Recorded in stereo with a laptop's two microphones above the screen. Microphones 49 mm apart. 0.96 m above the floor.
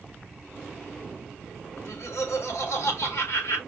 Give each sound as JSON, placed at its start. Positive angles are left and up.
{"t": 1.8, "sound": "laughter", "side_deg": 70, "distance_m": 1.9}